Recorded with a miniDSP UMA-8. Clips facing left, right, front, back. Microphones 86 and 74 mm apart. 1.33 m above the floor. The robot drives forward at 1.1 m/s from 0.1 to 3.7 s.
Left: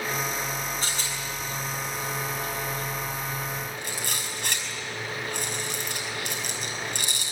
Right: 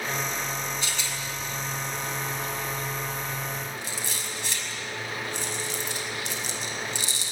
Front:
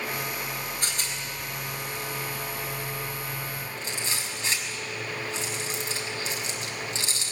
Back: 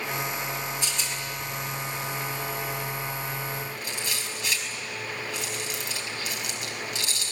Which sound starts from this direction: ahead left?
A rattle, at 0.8 s.